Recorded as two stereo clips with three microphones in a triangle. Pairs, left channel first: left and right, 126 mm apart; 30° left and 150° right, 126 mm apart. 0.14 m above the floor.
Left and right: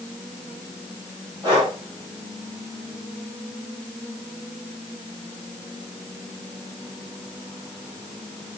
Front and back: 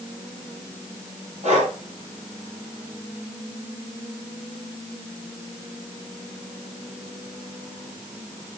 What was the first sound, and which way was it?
Breathing, 140° right.